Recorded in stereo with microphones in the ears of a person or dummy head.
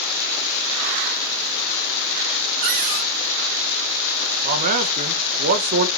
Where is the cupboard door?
40° right (ahead or behind), 1.4 m.